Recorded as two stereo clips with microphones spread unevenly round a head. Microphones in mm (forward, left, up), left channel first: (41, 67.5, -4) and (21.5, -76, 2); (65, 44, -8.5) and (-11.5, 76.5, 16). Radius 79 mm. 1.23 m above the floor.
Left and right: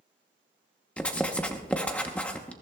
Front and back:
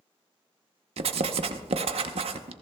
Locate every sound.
1.0 s writing: 165° left, 0.8 m